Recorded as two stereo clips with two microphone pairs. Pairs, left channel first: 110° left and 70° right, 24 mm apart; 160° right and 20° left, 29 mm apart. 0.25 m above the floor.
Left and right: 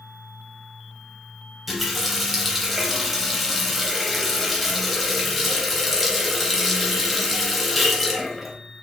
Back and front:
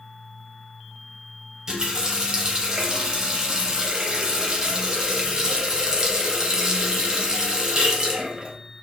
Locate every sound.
1.7 s a running tap: 20° left, 0.6 m